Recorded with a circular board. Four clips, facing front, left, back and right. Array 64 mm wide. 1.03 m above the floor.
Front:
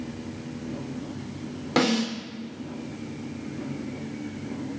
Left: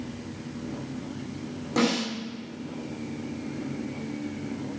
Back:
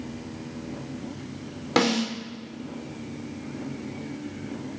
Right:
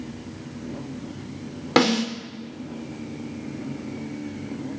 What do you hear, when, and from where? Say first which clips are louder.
1.8 s a snare drum: right 5 dB, even; 105° right, 3 m